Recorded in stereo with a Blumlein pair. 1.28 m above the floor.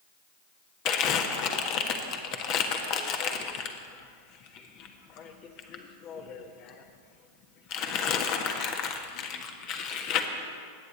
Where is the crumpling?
40° left, 1.4 m.